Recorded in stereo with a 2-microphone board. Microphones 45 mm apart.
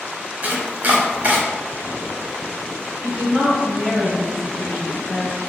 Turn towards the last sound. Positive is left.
turn(degrees=-20)  # may be behind; listen again after turning